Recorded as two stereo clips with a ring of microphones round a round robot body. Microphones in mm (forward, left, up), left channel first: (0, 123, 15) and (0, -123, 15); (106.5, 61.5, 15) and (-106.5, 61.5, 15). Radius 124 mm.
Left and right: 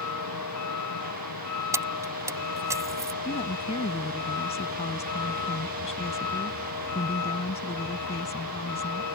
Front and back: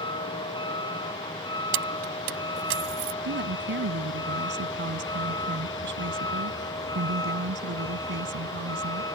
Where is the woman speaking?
155° left.